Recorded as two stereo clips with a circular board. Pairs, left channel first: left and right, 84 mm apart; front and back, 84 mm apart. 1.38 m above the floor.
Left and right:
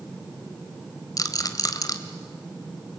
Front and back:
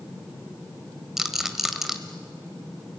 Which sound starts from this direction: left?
A rattle, at 1.2 s.